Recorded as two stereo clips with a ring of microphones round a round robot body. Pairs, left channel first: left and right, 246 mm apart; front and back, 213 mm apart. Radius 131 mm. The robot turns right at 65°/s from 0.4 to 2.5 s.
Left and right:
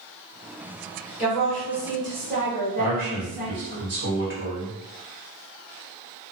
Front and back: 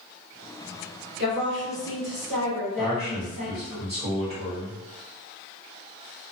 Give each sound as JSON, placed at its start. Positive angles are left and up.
{"t": 1.2, "sound": "a woman speaking", "azimuth_deg": 140, "distance_m": 1.7}
{"t": 2.8, "sound": "a man speaking", "azimuth_deg": -125, "distance_m": 1.7}